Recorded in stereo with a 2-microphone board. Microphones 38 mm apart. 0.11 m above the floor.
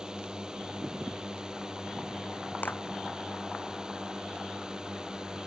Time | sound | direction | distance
0.0 | a drone | 20° right (ahead or behind) | ?
2.6 | a clap | 55° left (ahead or behind) | ?